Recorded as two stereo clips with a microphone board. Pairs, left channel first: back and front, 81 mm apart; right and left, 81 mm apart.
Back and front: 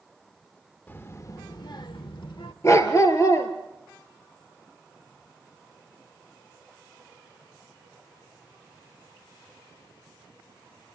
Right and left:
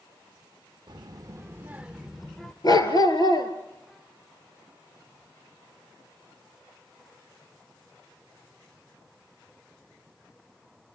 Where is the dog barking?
130° right, 3 m.